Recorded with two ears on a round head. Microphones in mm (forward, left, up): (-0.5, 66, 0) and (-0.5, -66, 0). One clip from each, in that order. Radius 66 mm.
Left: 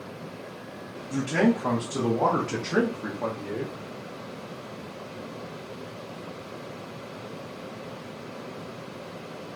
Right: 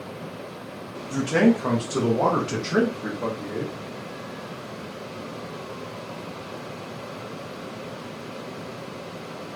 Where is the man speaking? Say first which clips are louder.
Right 4 dB; 55° right (ahead or behind), 1.3 m; by 3.7 s 35° left (ahead or behind), 0.9 m.